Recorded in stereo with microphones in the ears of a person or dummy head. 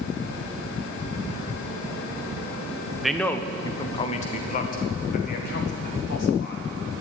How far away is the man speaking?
About 0.7 m.